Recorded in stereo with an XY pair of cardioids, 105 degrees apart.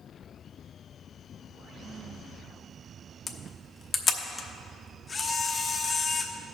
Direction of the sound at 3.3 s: 30° left.